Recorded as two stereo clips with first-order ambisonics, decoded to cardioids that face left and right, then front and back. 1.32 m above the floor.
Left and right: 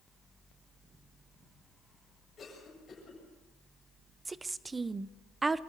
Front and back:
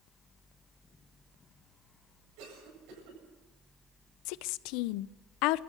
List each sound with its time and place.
2.4 s a cough: 165° left, 8.5 m
4.2 s a woman speaking: 15° right, 0.6 m